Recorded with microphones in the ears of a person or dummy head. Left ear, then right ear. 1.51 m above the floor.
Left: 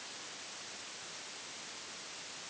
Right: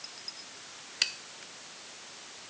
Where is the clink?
No clink in this recording.